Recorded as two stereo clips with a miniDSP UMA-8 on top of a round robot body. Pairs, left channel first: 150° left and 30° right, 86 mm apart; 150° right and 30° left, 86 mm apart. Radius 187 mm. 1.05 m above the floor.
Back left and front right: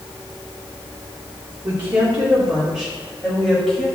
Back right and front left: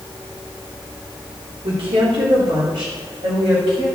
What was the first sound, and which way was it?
A woman speaking, 35° left.